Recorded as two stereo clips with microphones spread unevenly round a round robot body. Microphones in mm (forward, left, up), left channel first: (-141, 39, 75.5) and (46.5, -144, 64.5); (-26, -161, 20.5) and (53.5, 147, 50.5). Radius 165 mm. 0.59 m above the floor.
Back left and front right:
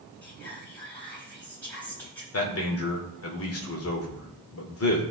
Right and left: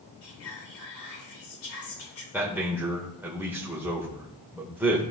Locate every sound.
0.2 s whispering: 140° right, 5 m
2.3 s a man speaking: 160° left, 1.6 m